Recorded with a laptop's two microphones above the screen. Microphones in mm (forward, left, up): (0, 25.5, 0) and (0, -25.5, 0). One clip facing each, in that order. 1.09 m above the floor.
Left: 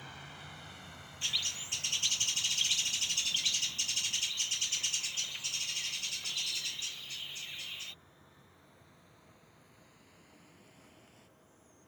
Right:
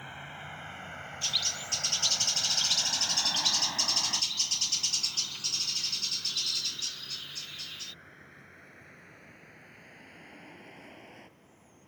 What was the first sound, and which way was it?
A vehicle, 25° right (ahead or behind).